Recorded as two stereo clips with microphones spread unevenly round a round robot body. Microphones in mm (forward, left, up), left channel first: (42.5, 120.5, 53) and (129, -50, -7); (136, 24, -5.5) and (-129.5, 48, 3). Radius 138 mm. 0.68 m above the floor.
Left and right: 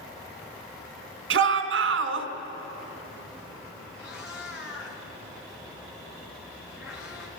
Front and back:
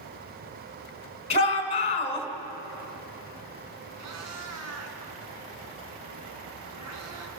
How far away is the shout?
About 2.5 m.